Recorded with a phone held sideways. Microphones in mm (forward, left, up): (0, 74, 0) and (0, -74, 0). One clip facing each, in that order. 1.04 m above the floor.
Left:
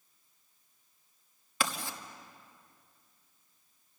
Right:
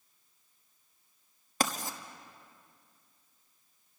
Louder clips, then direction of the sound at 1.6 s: Right 2 dB; 40° right (ahead or behind).